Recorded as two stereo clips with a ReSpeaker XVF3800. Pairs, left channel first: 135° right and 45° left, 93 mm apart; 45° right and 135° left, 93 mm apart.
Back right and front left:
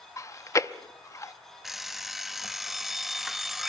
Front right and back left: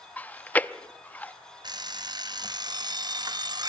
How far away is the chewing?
About 0.7 m.